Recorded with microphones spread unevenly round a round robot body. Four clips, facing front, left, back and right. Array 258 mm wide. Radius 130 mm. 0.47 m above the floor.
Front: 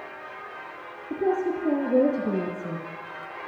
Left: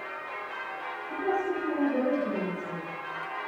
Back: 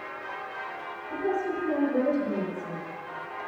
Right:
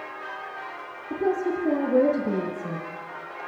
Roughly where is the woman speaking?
Ahead right.